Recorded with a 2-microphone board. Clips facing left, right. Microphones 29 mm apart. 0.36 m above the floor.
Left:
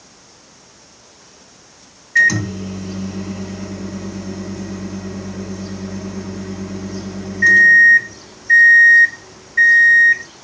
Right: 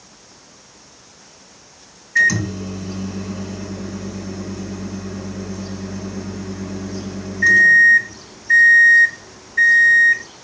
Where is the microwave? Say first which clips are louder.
Left 2 dB; 15° left (ahead or behind), 1.9 m.